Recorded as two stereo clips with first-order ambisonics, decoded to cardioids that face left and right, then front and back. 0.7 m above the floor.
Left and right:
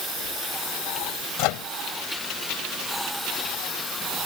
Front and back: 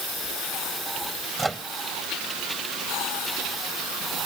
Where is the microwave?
95° left.